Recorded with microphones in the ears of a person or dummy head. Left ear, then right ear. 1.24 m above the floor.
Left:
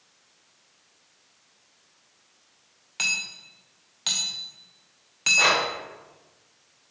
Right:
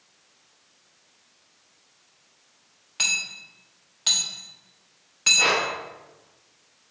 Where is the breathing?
75° left (ahead or behind), 1.7 m.